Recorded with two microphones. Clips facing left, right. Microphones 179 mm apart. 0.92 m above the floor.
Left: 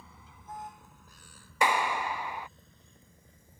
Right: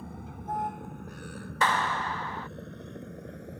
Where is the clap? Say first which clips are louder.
Left 1 dB; 10° left (ahead or behind).